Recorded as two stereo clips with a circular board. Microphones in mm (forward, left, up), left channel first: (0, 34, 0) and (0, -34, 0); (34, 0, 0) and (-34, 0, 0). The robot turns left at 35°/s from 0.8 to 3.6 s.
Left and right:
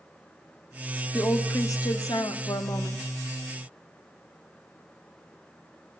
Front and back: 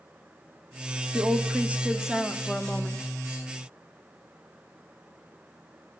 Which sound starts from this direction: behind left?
A woman speaking, at 1.1 s.